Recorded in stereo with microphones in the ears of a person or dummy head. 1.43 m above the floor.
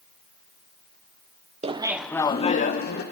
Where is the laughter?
35° right (ahead or behind), 0.8 m; by 3.0 s 50° left (ahead or behind), 1.4 m.